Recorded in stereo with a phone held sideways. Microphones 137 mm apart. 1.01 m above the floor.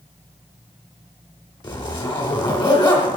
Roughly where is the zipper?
Left.